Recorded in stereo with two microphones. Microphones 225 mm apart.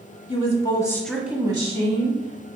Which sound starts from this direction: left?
A woman speaking, at 0.3 s.